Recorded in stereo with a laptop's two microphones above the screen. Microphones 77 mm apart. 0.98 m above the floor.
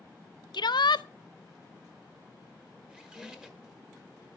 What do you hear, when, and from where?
0.5 s a shout: 70° left (ahead or behind), 0.5 m
2.9 s a squeak: 10° right (ahead or behind), 1.1 m